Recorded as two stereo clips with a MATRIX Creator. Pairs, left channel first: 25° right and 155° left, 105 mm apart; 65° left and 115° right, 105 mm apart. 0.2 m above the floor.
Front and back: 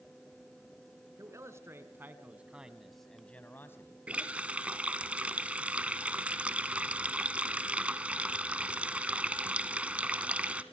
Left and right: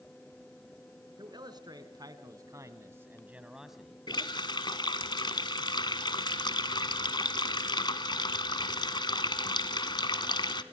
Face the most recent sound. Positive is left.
turn(degrees=85)